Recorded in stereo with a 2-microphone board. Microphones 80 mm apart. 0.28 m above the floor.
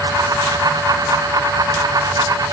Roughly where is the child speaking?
I don't hear a child speaking.